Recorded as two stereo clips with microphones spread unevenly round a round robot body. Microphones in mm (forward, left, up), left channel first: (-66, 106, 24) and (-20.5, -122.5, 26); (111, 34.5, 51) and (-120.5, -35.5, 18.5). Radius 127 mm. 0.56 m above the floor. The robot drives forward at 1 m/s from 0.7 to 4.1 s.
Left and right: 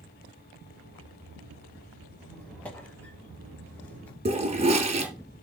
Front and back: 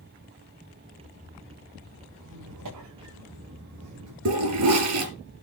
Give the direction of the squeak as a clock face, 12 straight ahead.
6 o'clock.